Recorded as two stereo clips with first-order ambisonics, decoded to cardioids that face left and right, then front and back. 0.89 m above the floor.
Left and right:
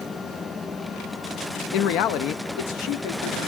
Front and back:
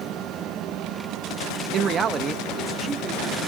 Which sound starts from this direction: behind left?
A man speaking, at 1.7 s.